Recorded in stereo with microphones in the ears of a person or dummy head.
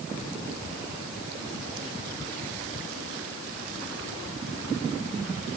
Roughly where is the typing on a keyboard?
No typing on a keyboard in this recording.